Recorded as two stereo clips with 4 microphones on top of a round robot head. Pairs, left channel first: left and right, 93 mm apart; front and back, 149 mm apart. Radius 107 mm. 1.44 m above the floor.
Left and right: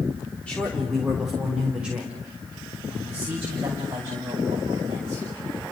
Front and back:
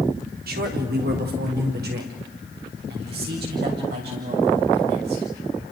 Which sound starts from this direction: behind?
A man speaking, at 0.5 s.